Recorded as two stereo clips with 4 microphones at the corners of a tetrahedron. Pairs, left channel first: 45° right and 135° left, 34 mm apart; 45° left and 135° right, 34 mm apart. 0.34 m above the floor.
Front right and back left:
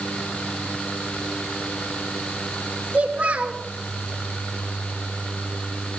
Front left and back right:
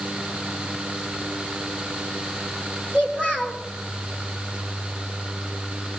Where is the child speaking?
90° left, 4.5 m.